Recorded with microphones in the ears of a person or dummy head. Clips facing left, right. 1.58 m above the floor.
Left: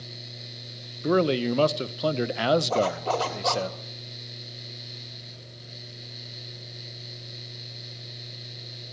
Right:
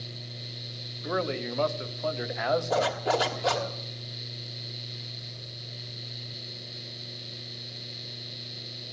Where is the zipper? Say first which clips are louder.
Left 1 dB; 15° right (ahead or behind), 2 m.